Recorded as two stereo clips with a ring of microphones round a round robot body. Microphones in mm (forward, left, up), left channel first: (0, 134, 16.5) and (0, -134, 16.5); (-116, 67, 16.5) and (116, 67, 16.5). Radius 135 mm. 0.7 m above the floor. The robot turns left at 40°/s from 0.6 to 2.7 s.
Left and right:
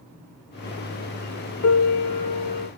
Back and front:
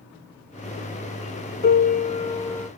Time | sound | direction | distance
1.6 | a piano | 135° left | 0.9 m